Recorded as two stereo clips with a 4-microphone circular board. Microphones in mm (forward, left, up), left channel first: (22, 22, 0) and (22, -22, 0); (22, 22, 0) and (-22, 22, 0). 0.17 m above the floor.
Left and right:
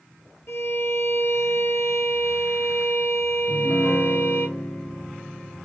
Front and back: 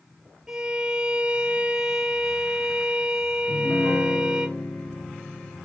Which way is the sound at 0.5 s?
105° left.